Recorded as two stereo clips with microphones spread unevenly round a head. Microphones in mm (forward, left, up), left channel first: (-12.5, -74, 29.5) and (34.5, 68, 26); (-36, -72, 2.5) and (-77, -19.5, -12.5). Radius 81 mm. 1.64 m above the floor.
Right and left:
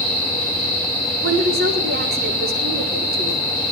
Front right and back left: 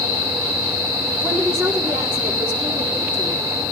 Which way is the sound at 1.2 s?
55° left.